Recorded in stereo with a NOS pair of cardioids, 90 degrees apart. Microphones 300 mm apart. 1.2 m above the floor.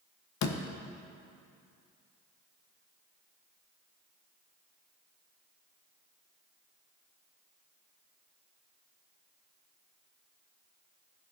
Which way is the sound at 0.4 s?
70° left.